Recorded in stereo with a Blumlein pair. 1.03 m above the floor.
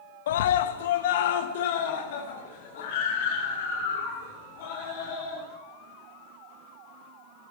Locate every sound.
0.3 s a scream: 60° left, 0.5 m; by 5.4 s 50° left, 3 m